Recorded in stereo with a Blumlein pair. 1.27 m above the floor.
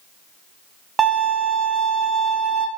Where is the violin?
15° right, 0.7 m.